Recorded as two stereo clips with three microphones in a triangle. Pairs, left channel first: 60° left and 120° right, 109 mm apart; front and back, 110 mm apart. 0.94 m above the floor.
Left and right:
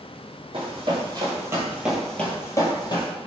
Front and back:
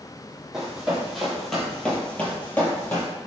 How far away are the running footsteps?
About 1.7 m.